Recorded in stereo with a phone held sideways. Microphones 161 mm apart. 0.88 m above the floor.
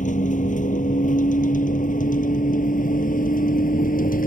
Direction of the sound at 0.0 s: 50° left (ahead or behind).